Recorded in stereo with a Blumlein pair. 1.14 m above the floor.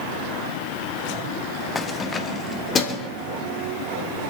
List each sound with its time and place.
1.8 s keys jangling: 15° left, 1.0 m; by 3.1 s 20° left, 2.5 m